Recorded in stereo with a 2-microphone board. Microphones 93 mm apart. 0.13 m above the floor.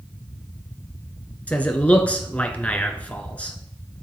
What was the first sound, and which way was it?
A man speaking, 15° left (ahead or behind).